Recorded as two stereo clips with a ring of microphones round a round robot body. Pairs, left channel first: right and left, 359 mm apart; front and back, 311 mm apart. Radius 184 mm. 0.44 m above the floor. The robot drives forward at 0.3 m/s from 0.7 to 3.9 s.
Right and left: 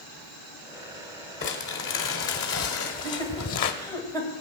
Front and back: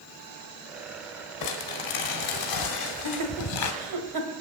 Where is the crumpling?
30° right, 1.6 m; by 3.7 s 50° right, 1.0 m.